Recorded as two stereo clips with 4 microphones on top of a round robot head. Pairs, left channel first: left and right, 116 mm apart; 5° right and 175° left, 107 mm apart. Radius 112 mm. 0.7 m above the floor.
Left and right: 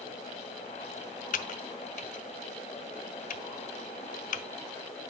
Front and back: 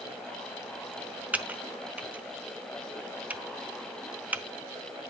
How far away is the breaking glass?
I don't hear breaking glass.